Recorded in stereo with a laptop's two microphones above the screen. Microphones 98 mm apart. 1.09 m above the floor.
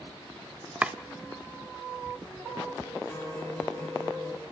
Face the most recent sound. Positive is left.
turn(degrees=30)  # may be behind; listen again after turning